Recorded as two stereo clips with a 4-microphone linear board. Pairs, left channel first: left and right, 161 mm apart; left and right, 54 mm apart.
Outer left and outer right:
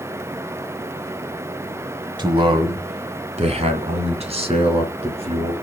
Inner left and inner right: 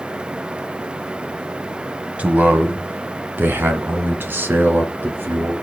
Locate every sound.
2.2 s a man speaking: 30° right (ahead or behind), 1.2 m; by 5.5 s 40° right (ahead or behind), 3 m